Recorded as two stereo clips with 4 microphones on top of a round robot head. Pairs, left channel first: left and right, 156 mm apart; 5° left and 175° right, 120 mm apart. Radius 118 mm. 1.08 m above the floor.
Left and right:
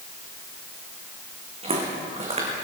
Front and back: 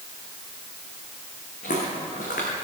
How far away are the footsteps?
About 3.5 m.